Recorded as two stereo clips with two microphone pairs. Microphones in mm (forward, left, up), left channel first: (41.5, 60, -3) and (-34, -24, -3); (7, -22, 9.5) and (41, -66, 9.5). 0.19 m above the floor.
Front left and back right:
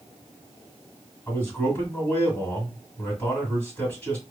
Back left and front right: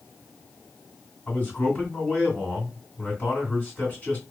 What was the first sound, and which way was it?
A man speaking, 105° left.